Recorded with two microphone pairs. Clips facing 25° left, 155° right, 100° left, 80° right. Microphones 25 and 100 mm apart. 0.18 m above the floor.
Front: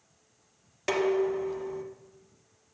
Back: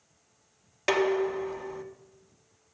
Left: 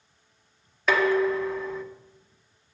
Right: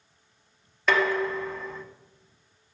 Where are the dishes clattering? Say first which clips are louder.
Back 1 dB, left 3 dB; straight behind, 1.0 m.